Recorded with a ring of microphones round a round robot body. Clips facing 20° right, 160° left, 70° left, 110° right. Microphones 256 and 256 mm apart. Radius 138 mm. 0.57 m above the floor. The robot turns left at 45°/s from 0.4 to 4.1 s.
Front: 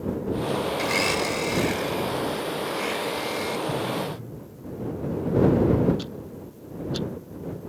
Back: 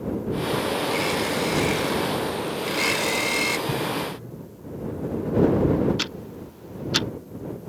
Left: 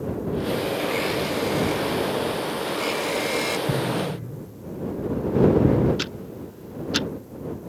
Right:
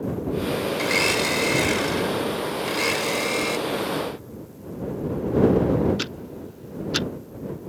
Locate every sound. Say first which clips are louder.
0.8 s a blender: back 1 dB, even; 75° right; by 3.6 s 155° left
3.7 s an explosion: back 1 dB, left 1 dB; 80° left; by 5.9 s 60° left
6.0 s ticking: back 1 dB, even; 160° left